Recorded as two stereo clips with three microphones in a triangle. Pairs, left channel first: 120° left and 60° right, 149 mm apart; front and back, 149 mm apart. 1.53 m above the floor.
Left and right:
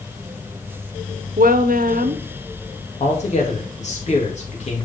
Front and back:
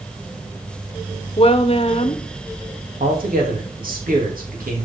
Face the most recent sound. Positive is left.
turn(degrees=160)